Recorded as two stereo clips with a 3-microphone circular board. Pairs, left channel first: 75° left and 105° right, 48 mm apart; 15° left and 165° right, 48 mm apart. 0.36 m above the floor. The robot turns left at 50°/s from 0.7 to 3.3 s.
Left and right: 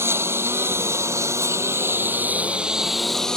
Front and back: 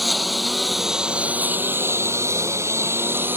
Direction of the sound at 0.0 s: 75° right.